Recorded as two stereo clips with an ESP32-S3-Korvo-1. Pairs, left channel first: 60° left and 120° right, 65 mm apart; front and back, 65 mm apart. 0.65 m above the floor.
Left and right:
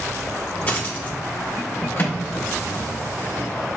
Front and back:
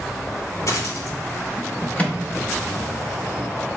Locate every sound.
0.7 s a dropped coin: 5° left, 0.8 m
2.0 s a microwave: 50° left, 0.7 m